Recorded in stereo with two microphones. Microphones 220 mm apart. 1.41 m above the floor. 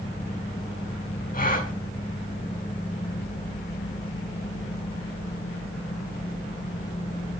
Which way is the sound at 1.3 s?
40° left (ahead or behind).